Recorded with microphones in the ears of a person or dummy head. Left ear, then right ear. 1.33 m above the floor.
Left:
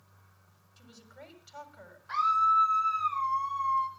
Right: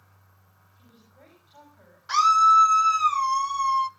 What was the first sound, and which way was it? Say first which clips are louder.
A woman speaking: left 6 dB; 70° left (ahead or behind).